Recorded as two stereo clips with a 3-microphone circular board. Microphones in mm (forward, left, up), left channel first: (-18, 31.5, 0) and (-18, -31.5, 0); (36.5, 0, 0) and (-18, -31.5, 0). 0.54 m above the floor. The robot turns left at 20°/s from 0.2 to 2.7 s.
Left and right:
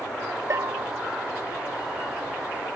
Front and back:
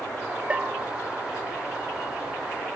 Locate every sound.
0.5 s a bell: 80° right, 0.6 m; by 0.9 s 90° right, 0.6 m